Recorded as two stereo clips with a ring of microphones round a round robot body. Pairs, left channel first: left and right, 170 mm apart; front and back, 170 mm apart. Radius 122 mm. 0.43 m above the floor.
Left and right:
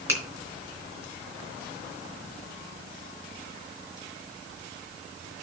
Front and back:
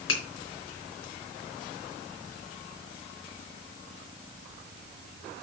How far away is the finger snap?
About 4 m.